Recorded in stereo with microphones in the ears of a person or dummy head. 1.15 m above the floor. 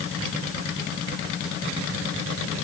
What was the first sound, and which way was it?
Only background noise.